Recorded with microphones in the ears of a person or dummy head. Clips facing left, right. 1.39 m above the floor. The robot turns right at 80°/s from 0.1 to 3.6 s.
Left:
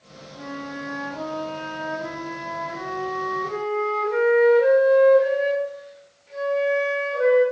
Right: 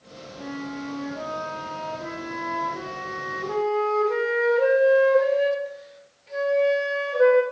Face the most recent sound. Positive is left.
turn(degrees=-70)